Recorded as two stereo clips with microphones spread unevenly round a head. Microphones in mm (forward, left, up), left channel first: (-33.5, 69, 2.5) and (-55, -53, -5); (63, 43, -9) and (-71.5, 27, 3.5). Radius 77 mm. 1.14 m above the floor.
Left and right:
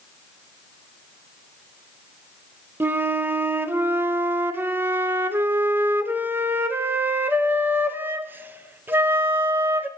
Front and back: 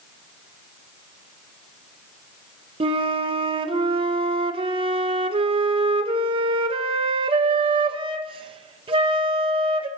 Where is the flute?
155° right, 0.5 m.